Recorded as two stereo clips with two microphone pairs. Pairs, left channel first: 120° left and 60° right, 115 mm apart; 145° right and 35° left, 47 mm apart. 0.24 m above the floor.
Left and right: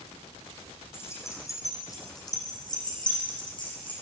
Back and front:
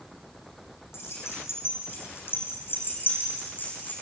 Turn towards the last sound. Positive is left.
turn(degrees=165)